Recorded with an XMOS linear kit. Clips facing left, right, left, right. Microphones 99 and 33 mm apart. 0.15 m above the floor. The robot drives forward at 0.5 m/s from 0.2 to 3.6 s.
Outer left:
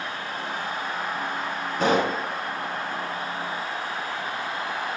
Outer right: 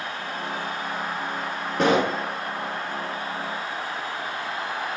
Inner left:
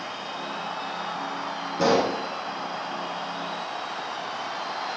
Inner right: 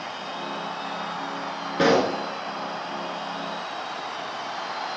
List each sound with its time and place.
1.8 s a pop: 70° right (ahead or behind), 4 m